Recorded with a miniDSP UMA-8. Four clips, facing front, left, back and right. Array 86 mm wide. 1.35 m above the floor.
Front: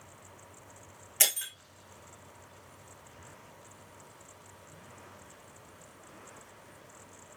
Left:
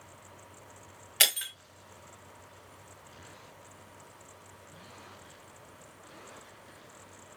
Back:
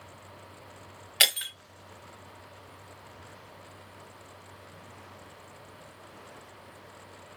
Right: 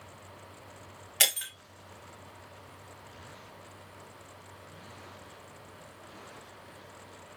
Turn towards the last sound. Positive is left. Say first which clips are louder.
# left 1 dB, back 6 dB
turn(degrees=170)